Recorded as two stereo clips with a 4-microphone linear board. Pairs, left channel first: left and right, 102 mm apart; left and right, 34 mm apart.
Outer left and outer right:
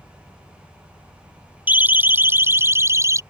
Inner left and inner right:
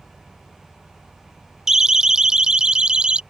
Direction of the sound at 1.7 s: 15° right (ahead or behind).